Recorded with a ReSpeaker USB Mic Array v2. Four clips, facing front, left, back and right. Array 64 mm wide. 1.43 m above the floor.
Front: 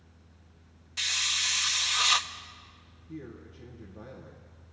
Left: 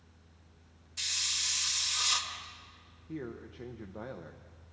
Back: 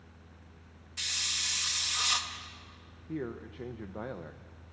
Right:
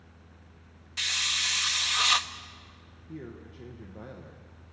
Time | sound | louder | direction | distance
1.0 | a hiss | right 9 dB, front 6 dB | 65° right | 1.0 m
3.1 | a man speaking | left 2 dB, back 5 dB | 165° left | 1.1 m